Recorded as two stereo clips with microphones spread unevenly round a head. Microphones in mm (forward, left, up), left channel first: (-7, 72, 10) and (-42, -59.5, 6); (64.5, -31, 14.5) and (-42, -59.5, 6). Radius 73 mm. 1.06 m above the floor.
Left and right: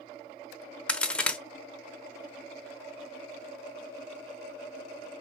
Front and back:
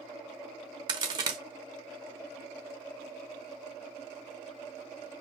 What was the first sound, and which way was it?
A crack, 150° left.